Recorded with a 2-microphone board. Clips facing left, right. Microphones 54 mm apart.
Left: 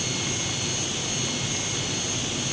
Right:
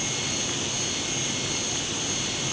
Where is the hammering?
No hammering in this recording.